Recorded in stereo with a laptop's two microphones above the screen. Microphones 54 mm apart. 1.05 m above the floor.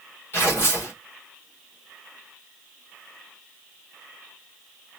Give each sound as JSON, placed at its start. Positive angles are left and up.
{"t": 0.3, "sound": "tearing paper", "side_deg": 45, "distance_m": 1.3}